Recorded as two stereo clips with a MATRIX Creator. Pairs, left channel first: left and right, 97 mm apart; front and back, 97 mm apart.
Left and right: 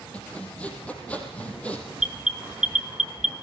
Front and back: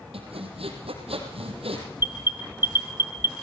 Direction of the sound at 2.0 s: 165° right.